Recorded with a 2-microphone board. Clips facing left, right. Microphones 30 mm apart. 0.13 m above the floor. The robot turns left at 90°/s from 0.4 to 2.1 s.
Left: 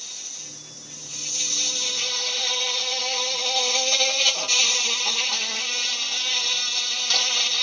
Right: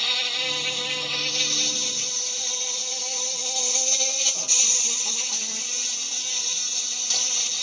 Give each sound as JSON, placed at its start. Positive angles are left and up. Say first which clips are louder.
{"t": 0.0, "sound": "an insect", "louder": "right 15 dB", "azimuth_deg": -60}